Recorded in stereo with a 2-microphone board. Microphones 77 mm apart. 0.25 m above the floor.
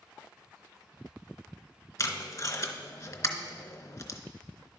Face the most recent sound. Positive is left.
turn(degrees=40)  # may be behind; listen again after turning